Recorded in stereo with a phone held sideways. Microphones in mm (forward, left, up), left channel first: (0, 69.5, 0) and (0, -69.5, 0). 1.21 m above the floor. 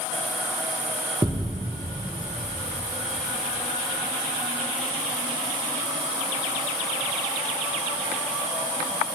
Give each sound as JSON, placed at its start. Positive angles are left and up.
{"t": 1.2, "sound": "a thud", "side_deg": -30, "distance_m": 1.2}